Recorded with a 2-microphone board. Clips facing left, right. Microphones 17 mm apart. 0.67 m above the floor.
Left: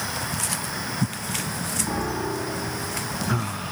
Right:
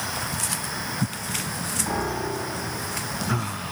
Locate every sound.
1.9 s a piano: 40° right (ahead or behind), 5 m